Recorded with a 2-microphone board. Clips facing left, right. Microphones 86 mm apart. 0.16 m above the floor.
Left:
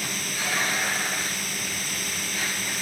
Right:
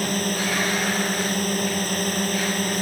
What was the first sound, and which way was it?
A drone, 50° right (ahead or behind).